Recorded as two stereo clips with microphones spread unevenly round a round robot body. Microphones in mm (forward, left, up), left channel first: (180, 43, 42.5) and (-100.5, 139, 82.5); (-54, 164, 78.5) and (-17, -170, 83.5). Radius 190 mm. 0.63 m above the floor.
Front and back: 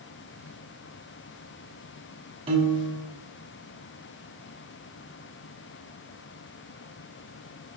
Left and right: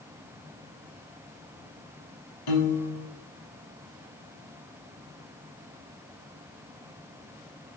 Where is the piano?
95° left, 0.8 m.